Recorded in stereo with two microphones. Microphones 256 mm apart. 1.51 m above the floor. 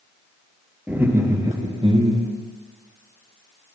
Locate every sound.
0.9 s laughter: 5° right (ahead or behind), 3.5 m; by 2.3 s 25° right (ahead or behind), 3.5 m